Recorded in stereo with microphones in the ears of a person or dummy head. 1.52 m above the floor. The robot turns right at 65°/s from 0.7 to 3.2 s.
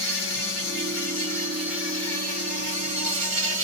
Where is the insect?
120° left, 2.5 m; by 3.6 s 75° right, 2.5 m.